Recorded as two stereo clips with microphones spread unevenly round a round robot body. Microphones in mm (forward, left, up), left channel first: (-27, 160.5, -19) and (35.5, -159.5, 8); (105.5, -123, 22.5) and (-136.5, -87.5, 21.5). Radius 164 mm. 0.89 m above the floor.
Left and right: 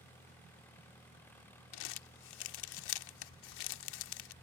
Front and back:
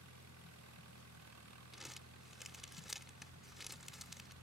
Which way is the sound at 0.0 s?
175° right.